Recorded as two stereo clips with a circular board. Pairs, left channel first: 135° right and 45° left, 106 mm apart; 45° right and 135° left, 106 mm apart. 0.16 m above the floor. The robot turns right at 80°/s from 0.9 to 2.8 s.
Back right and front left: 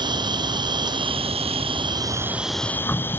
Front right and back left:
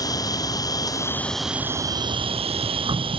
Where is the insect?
5° left; by 3.2 s 155° left.